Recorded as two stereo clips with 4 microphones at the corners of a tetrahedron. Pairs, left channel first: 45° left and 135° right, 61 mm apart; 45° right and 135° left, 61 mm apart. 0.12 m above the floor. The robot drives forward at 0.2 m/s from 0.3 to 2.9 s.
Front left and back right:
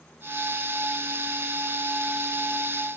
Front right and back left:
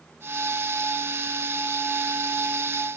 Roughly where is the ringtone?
I don't hear a ringtone.